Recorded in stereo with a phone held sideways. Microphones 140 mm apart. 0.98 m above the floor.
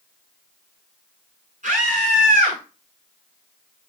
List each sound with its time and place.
1.6 s a scream: 60° right (ahead or behind), 9.5 m